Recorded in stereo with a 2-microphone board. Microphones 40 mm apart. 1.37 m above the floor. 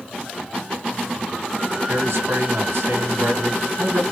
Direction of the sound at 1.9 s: 85° right.